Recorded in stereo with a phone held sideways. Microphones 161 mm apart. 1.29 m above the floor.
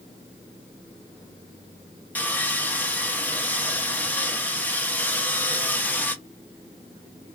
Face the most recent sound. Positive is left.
turn(degrees=10)  # may be behind; listen again after turning